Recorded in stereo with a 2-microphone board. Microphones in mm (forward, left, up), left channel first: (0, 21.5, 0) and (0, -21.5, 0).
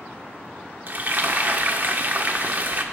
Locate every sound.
0.9 s frying: 40° right (ahead or behind), 1.3 m